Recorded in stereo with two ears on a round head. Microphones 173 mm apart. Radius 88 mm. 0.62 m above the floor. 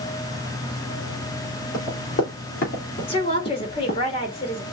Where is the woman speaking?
30° left (ahead or behind), 1.6 m.